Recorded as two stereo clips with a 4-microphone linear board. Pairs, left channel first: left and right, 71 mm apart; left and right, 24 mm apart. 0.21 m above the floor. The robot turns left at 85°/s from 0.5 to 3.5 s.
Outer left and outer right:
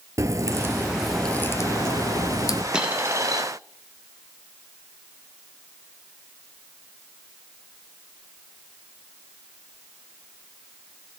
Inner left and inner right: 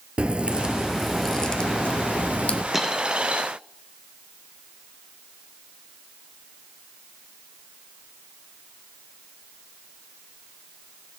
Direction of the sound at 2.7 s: 10° right (ahead or behind).